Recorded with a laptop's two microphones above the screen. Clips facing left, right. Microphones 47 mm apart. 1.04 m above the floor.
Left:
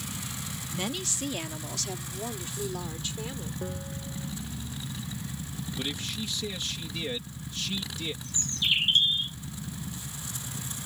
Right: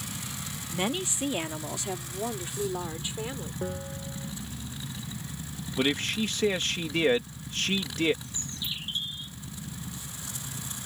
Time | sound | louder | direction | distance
0.7 | a woman speaking | right 4 dB | 20° right (ahead or behind) | ?
3.6 | a bell | right 2 dB | 15° right (ahead or behind) | ?
5.8 | a man speaking | right 9 dB | 55° right (ahead or behind) | ?
8.2 | a bird | left 8 dB | 65° left (ahead or behind) | ?